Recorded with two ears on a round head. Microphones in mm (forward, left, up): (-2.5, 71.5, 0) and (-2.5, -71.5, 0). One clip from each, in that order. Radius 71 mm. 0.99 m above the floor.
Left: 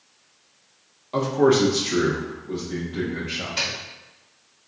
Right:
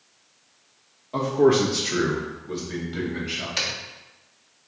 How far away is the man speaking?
About 1.2 m.